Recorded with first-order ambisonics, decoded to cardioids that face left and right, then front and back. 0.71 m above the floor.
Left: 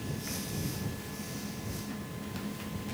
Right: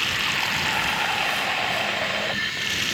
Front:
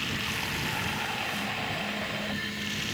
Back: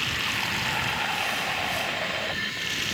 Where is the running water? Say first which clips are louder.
Right 18 dB, back 5 dB; 110° right.